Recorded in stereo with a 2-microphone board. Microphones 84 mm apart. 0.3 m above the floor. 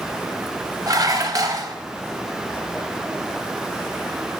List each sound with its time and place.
0.9 s dishes clattering: 50° right (ahead or behind), 0.9 m